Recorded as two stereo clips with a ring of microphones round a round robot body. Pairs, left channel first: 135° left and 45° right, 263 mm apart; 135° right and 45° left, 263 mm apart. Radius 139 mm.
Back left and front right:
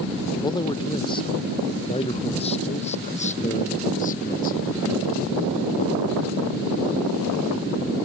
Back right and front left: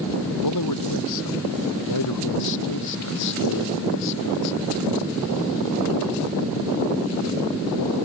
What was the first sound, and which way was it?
A man speaking, 150° right.